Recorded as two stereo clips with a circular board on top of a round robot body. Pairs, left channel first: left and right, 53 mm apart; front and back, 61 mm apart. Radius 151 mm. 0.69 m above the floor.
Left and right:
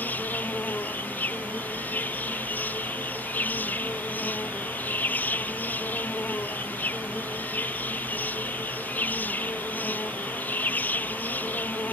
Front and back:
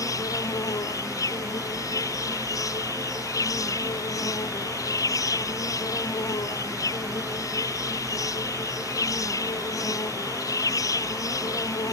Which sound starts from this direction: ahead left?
An insect, at 0.0 s.